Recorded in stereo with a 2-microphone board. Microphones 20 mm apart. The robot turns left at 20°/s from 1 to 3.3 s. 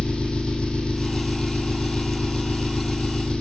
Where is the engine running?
125° left, 3 m; by 3.4 s 75° left, 3 m.